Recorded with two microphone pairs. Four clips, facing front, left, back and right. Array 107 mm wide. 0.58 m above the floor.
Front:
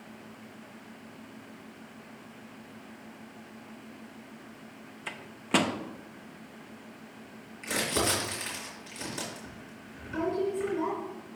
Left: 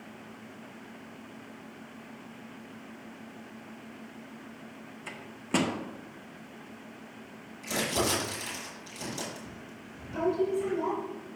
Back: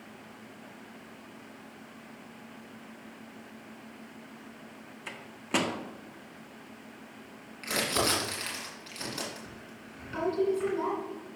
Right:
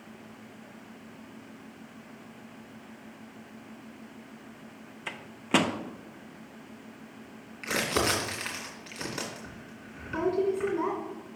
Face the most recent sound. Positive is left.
turn(degrees=-100)